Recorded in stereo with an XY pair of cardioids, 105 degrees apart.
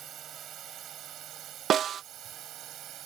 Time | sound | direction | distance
0.0 | a drone | 65° right | ?
1.7 | a snare drum | 60° right | ?